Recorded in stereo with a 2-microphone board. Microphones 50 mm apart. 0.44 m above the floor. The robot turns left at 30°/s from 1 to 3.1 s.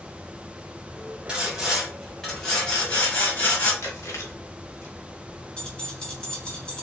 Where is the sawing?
165° right, 2.5 m; by 3.7 s 145° left, 2.5 m.